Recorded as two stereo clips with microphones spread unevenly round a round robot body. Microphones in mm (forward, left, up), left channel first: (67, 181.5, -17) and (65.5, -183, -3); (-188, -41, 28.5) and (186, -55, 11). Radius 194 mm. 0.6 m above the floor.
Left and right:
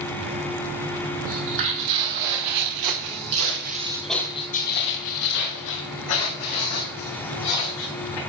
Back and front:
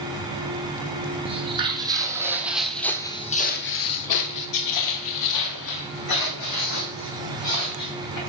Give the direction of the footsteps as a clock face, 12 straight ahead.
3 o'clock.